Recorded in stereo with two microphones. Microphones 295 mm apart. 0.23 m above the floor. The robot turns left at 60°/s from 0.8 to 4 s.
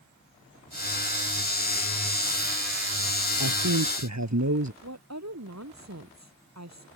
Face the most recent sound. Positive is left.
turn(degrees=-60)  # may be behind; listen again after turning